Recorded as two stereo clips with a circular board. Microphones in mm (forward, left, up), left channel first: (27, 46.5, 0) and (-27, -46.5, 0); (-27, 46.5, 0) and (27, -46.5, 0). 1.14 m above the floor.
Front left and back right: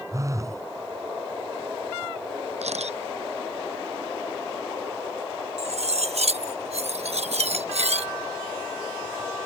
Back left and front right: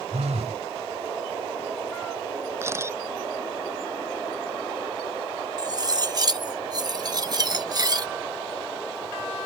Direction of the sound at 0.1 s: 60° right.